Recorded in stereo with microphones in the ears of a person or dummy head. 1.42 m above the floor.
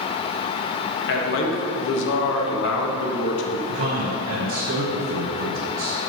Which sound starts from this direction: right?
A man speaking, at 3.7 s.